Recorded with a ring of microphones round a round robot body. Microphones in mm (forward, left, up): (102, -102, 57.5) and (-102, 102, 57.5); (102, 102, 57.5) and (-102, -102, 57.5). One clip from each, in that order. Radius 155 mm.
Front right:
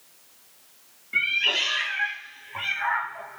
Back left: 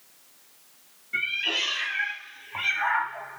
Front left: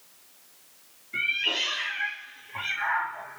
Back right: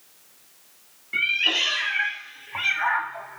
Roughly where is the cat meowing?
Behind right.